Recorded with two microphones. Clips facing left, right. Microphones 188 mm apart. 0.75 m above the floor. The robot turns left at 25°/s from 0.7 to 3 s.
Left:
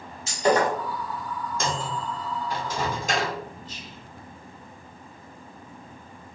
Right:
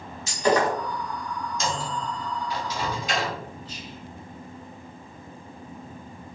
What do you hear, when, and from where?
0.3 s breaking glass: 30° left (ahead or behind), 1.4 m
1.6 s a microwave: 55° left (ahead or behind), 0.7 m; by 3.4 s 45° left (ahead or behind), 0.7 m
3.6 s whispering: 10° right (ahead or behind), 1.2 m